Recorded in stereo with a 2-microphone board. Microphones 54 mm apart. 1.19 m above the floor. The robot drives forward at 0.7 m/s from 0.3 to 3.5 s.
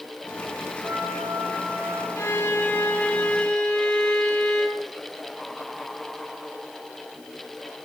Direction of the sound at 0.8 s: 50° right (ahead or behind).